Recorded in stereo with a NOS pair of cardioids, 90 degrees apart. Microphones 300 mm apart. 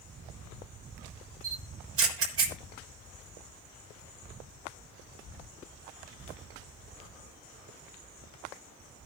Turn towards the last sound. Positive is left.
turn(degrees=-50)